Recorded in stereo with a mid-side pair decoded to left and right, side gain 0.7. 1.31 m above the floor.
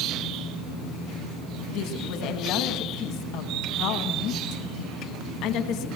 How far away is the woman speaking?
About 1.9 m.